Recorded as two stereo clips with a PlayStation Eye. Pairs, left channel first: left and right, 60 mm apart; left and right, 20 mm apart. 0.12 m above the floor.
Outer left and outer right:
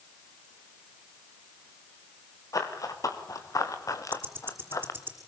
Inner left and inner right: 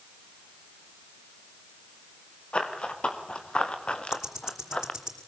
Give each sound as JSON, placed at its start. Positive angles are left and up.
{"t": 2.5, "sound": "running footsteps", "side_deg": 80, "distance_m": 4.0}
{"t": 4.1, "sound": "ticking", "side_deg": -35, "distance_m": 5.5}